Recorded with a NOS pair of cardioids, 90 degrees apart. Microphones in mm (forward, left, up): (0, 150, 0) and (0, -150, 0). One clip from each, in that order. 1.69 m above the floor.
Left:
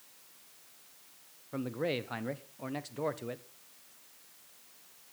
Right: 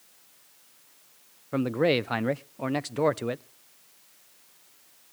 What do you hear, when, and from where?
1.5 s a man speaking: 40° right, 0.6 m